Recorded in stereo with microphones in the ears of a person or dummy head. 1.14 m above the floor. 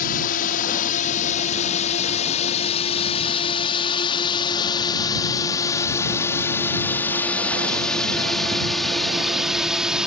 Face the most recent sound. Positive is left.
turn(degrees=-5)  # may be behind; listen again after turning